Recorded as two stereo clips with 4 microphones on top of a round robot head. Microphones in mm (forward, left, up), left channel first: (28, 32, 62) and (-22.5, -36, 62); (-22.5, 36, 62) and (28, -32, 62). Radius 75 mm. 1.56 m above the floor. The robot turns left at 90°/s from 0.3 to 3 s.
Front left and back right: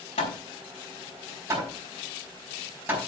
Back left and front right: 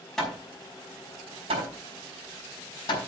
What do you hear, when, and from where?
0.2 s hammering: 40° left, 5.5 m; by 3.0 s 160° left, 5.5 m